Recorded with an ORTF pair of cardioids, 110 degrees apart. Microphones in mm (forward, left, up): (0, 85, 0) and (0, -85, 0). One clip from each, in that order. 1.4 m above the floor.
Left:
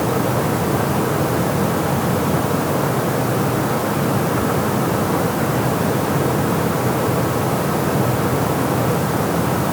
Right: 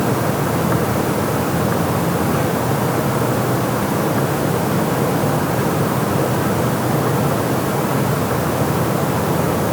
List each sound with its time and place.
Only background noise.